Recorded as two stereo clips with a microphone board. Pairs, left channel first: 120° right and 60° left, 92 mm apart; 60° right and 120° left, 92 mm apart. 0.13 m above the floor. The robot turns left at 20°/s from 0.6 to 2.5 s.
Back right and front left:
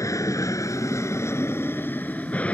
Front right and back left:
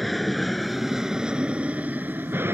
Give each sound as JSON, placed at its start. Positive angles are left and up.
{"t": 0.0, "sound": "an aircraft", "azimuth_deg": -150}